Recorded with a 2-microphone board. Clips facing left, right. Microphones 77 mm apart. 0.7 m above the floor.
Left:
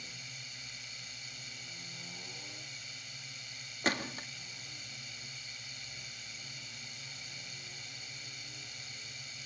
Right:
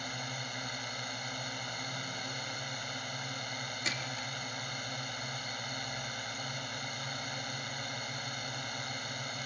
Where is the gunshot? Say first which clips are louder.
Left 7 dB; 45° left (ahead or behind).